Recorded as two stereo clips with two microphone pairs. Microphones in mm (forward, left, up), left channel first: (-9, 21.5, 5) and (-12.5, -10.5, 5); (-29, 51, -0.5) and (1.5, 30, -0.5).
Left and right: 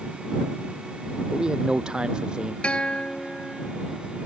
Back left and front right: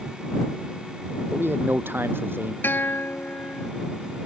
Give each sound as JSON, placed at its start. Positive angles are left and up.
{"t": 1.3, "sound": "a man speaking", "azimuth_deg": -35}
{"t": 2.6, "sound": "a guitar", "azimuth_deg": 140}